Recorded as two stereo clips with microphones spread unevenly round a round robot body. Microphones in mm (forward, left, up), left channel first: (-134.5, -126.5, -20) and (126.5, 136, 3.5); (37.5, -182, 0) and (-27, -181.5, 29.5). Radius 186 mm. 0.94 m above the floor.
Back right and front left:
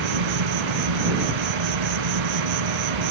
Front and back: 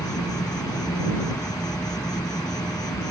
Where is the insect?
50° left.